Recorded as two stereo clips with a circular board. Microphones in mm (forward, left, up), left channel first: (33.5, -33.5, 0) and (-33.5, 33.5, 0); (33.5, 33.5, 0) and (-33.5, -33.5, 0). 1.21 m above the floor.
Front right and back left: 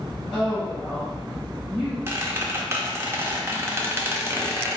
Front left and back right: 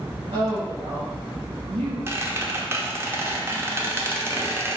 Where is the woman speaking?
125° right, 1.3 m.